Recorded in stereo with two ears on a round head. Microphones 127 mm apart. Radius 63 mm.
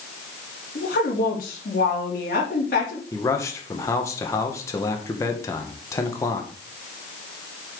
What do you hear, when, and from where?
0.8 s a woman speaking: 70° left (ahead or behind), 3.5 m
3.1 s a man speaking: 20° left (ahead or behind), 1.4 m